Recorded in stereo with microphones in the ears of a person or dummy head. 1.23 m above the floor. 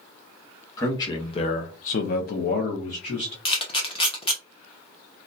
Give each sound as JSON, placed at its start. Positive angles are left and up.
{"t": 0.8, "sound": "a man speaking", "side_deg": 20, "distance_m": 0.8}
{"t": 3.5, "sound": "a camera shutter", "side_deg": 30, "distance_m": 0.6}